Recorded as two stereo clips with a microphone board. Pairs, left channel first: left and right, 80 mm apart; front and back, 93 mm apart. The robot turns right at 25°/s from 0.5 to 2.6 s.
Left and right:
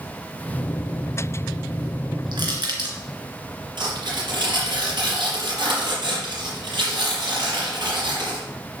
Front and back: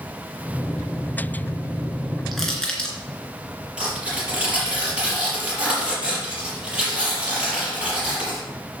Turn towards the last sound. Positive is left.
turn(degrees=-105)